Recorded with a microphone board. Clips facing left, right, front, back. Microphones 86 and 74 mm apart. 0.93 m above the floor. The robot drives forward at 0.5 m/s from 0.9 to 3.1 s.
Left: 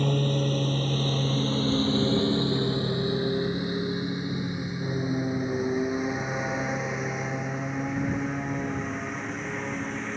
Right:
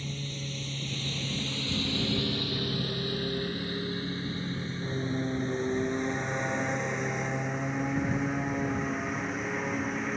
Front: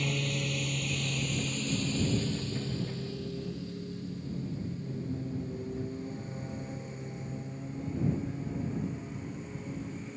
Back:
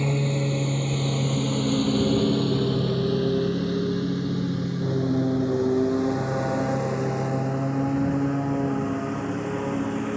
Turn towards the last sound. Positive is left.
turn(degrees=-175)